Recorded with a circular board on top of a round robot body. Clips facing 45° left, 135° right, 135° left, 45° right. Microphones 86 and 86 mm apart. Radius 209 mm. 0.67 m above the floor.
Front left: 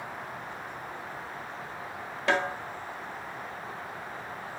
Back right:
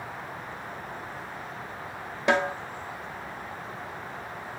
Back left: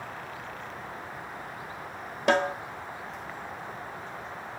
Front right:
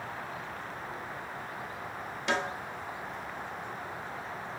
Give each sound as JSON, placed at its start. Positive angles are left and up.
{"t": 2.3, "sound": "a snare drum", "azimuth_deg": 155, "distance_m": 1.4}